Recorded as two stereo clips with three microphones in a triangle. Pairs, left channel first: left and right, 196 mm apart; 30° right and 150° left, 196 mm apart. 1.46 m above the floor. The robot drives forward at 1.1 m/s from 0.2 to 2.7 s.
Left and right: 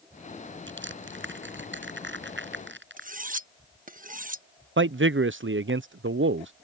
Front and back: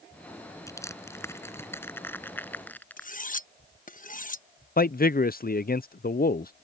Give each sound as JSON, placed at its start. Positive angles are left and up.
{"t": 0.7, "sound": "crushing", "azimuth_deg": -105}
{"t": 3.0, "sound": "cutlery clinking", "azimuth_deg": -60}
{"t": 4.8, "sound": "a man speaking", "azimuth_deg": -75}